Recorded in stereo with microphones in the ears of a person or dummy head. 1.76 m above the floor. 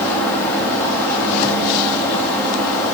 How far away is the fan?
About 4 m.